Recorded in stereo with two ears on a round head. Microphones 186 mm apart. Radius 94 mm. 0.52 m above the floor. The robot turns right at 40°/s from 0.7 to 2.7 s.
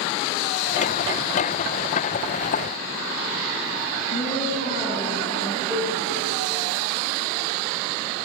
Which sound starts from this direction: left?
A woman speaking, at 4.1 s.